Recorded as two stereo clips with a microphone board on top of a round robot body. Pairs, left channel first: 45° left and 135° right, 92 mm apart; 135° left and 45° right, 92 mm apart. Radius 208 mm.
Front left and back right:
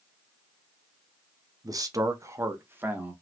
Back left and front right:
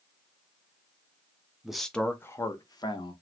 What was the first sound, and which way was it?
A man speaking, 130° right.